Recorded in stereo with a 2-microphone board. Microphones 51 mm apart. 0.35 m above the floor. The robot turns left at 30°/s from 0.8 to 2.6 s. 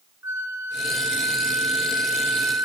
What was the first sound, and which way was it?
A flute, 90° right.